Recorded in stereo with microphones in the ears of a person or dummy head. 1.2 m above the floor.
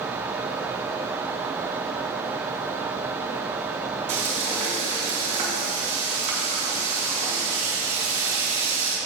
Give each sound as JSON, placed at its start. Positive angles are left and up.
{"t": 4.1, "sound": "frying", "side_deg": -40, "distance_m": 3.5}